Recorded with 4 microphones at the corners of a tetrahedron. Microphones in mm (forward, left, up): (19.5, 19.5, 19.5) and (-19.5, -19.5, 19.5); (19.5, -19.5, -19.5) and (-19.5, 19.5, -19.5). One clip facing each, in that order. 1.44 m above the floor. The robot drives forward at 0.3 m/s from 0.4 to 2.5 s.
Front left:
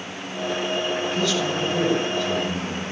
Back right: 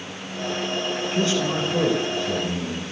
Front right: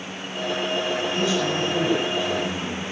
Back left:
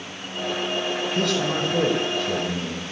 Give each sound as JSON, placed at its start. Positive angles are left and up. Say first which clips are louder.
{"t": 1.1, "sound": "a man speaking", "louder": "back right 1 dB, back left 1 dB", "azimuth_deg": 165, "distance_m": 6.0}